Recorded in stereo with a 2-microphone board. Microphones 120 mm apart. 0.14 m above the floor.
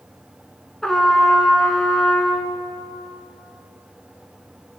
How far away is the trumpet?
About 0.8 m.